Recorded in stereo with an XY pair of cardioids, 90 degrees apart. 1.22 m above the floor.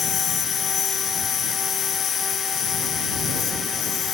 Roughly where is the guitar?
No guitar in this recording.